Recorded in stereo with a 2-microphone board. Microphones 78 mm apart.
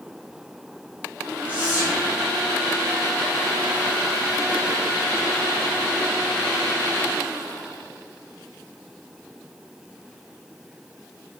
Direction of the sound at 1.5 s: 35° right (ahead or behind).